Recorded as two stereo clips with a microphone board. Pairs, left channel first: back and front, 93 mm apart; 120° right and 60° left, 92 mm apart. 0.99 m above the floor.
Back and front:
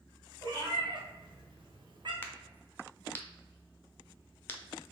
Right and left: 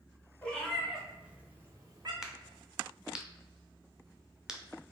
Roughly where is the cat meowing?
Ahead right.